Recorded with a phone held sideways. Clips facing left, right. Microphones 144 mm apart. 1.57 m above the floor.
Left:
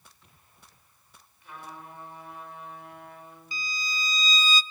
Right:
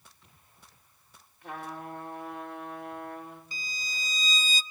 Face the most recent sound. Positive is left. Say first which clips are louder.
# left 5 dB
turn(degrees=-50)  # may be behind; listen again after turning